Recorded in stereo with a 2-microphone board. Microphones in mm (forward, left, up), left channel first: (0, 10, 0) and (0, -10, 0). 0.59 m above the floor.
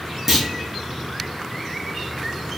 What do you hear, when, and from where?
0.3 s a clunk: 15° right (ahead or behind), 1.1 m